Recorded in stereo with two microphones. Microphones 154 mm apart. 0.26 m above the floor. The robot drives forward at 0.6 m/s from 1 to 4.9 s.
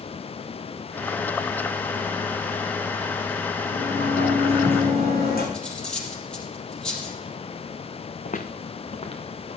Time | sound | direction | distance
3.7 | a sliding door | 80° left | 7.5 m
5.5 | cutlery clinking | 5° left (ahead or behind) | 4 m
8.2 | footsteps | 60° left (ahead or behind) | 1.3 m